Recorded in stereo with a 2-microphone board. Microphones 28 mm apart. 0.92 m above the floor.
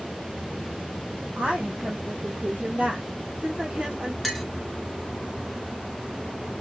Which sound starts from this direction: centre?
A clink, at 4.2 s.